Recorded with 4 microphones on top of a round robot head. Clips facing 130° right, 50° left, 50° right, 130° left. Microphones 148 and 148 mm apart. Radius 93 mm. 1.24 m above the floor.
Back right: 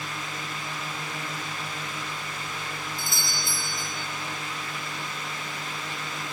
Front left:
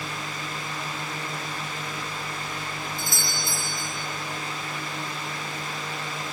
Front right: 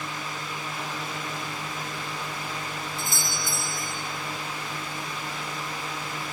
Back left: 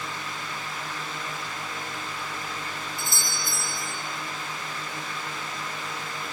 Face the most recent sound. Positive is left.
turn(degrees=100)